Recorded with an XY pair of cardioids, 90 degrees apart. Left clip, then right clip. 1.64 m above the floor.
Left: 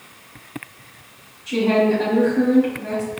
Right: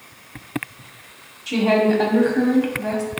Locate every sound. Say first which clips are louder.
1.5 s a woman speaking: even; 65° right, 1.2 m